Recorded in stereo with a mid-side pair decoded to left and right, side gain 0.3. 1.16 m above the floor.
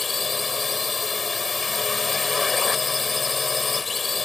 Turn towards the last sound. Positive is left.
turn(degrees=40)